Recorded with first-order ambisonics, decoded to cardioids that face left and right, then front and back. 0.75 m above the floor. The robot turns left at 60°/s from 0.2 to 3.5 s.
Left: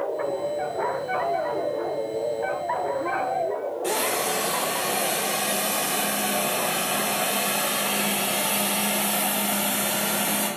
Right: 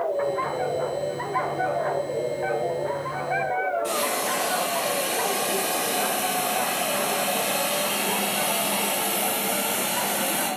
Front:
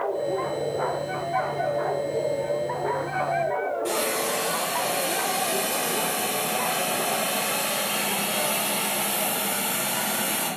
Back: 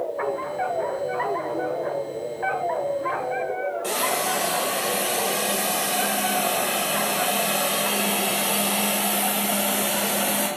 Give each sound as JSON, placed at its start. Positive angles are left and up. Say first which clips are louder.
{"t": 3.8, "sound": "a hiss", "louder": "even, back 2 dB", "azimuth_deg": 150, "distance_m": 1.4}